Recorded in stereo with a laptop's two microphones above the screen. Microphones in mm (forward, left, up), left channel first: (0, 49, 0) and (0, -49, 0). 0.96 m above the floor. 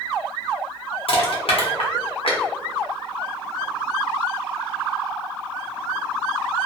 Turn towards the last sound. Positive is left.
turn(degrees=70)  # may be behind; listen again after turning